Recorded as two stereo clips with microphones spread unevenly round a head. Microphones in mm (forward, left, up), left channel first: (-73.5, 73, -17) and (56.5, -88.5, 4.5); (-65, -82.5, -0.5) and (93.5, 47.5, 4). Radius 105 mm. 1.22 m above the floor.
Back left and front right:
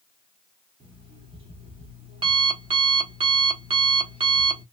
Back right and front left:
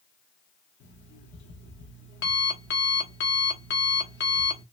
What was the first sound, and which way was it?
An alarm clock, 110° right.